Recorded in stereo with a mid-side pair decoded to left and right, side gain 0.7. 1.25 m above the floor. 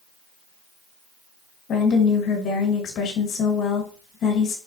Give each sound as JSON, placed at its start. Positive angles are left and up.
{"t": 1.7, "sound": "a woman speaking", "azimuth_deg": 45, "distance_m": 1.4}